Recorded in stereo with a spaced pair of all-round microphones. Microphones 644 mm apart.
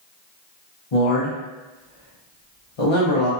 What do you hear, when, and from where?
0.9 s a man speaking: 55° left (ahead or behind), 0.8 m